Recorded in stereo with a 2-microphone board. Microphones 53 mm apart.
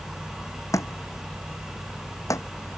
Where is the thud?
85° left.